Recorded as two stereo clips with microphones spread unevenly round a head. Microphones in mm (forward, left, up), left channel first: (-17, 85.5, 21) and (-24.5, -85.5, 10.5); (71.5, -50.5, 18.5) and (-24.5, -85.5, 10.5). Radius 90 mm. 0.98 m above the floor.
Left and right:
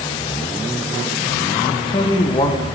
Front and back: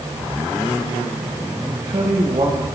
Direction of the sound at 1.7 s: 150° left.